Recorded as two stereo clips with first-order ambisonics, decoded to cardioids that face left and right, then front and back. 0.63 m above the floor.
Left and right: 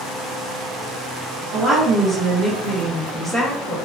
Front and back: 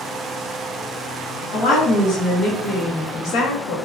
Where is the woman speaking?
60° right, 1.0 m; by 3.8 s 5° right, 1.6 m.